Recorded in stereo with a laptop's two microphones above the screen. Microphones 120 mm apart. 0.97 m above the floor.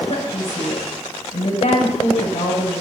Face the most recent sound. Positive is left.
turn(degrees=65)  # may be behind; listen again after turning